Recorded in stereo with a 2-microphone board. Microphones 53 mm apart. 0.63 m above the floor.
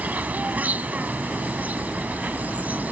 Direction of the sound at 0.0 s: 30° right (ahead or behind).